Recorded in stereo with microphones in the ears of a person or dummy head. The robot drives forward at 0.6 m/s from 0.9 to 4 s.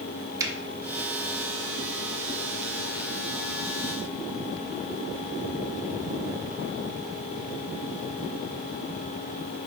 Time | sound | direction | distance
0.4 | a finger snap | 15° right (ahead or behind) | 0.7 m